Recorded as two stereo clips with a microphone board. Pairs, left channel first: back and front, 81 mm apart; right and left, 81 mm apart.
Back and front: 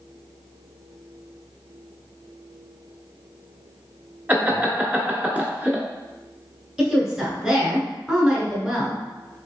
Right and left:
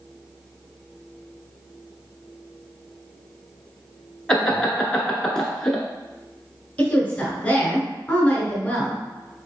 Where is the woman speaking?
65° right, 1.3 m.